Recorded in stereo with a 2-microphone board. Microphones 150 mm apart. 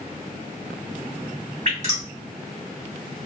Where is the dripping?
55° right (ahead or behind), 1.8 m.